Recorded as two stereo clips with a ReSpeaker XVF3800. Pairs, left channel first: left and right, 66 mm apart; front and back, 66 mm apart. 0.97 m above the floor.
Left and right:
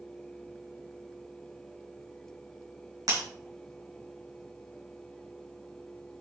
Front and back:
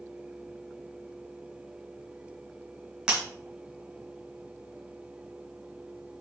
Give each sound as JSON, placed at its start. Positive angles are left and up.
{"t": 3.1, "sound": "breaking glass", "azimuth_deg": -100, "distance_m": 2.5}